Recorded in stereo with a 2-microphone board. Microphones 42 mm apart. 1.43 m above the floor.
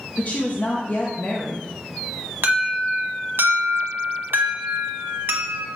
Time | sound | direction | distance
0.2 | a woman speaking | 40° left (ahead or behind) | 0.7 m
2.4 | an alarm | 65° right (ahead or behind) | 1.1 m